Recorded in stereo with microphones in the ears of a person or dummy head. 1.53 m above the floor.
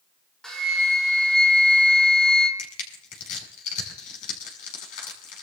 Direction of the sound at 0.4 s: Centre (ahead or behind).